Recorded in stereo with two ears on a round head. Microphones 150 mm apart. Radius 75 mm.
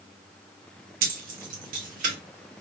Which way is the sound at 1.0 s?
55° right (ahead or behind).